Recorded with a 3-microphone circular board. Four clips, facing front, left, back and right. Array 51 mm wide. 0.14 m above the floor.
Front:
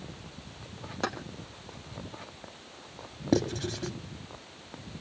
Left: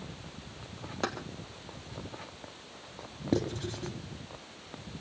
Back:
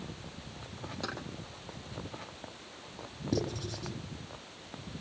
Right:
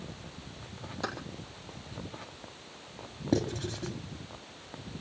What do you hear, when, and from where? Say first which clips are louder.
1.0 s keys jangling: left 2 dB, front 7 dB; 50° left, 3 m
3.3 s writing: right 1 dB, front 7 dB; straight ahead, 2 m